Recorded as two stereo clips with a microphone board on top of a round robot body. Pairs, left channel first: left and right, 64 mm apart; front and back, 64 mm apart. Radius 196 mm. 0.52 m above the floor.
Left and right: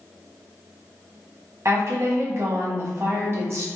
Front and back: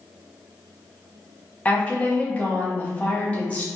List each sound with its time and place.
1.6 s a woman speaking: 65° right, 1.2 m